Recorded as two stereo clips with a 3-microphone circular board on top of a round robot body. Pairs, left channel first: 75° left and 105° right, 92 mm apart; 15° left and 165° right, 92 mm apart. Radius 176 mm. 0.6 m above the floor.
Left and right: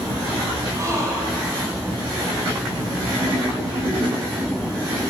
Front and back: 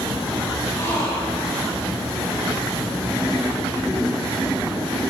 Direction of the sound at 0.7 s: 45° right.